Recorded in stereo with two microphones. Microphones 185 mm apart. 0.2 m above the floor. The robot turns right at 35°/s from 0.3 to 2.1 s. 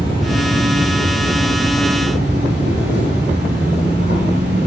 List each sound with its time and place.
0.0 s an insect: 150° right, 1.4 m; by 4.7 s 85° right, 1.4 m